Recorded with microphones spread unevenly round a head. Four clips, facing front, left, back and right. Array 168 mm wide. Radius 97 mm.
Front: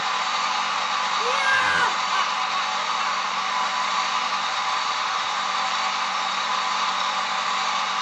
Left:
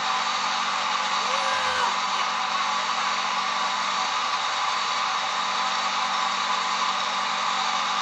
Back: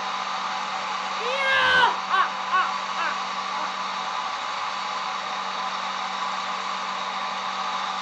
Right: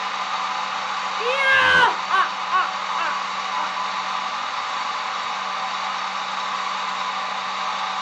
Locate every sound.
1.2 s laughter: 70° right; by 3.8 s 140° right